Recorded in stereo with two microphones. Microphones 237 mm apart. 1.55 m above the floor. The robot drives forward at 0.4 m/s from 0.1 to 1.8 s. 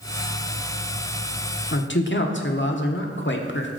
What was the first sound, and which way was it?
A man speaking, 55° left (ahead or behind).